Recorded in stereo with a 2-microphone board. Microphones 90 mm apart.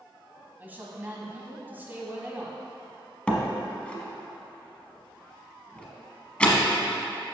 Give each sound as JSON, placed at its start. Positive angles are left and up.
{"t": 0.6, "sound": "a woman speaking", "side_deg": -20, "distance_m": 1.0}
{"t": 3.3, "sound": "a door slam", "side_deg": 15, "distance_m": 0.9}